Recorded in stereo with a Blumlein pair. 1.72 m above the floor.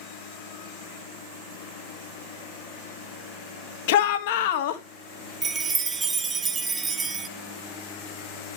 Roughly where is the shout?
Ahead left.